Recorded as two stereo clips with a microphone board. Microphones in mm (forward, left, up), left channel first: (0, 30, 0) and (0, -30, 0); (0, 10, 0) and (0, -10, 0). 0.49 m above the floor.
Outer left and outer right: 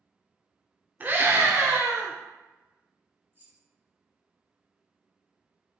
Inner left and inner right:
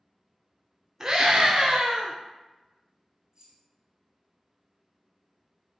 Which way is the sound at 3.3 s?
40° right (ahead or behind).